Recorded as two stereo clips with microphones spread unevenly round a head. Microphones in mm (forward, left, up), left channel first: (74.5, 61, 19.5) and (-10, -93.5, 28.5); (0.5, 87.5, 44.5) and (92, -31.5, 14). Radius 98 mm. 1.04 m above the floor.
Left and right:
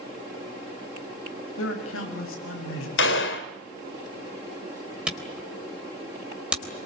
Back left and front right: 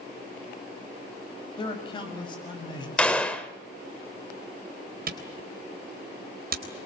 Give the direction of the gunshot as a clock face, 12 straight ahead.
10 o'clock.